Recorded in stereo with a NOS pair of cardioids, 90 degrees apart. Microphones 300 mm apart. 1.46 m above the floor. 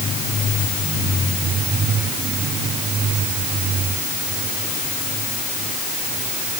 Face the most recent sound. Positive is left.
No sound to turn to.